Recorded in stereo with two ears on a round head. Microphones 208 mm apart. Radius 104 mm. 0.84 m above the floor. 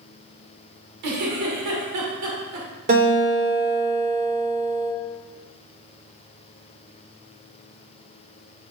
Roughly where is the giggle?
Right.